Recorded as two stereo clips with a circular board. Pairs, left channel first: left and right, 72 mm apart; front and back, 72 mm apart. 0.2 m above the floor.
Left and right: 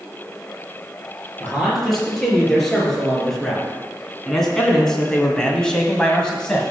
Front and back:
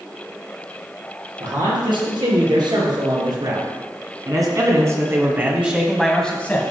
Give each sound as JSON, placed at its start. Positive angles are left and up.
{"t": 1.4, "sound": "a man speaking", "azimuth_deg": 180, "distance_m": 4.5}